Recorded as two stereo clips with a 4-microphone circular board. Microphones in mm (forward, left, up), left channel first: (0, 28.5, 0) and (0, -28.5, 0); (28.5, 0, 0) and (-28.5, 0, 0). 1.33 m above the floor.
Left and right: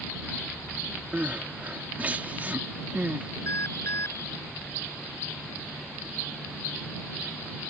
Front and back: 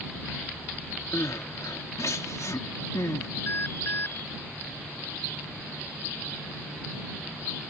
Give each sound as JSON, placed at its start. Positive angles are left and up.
{"t": 1.1, "sound": "crying", "azimuth_deg": -25}
{"t": 3.5, "sound": "an alarm", "azimuth_deg": 50}